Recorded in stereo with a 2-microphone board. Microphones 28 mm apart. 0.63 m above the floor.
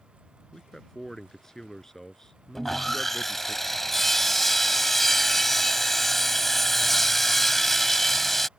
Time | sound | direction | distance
0.5 | a man speaking | 15° left (ahead or behind) | ?
2.5 | sawing | 10° left (ahead or behind) | ?